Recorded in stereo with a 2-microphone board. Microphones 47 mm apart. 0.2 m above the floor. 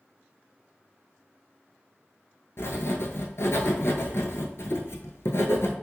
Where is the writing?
65° left (ahead or behind), 0.7 m.